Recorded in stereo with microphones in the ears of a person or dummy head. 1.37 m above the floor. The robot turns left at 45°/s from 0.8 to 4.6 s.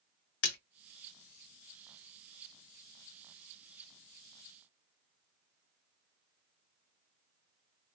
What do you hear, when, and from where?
0.4 s a splash: 75° left (ahead or behind), 0.7 m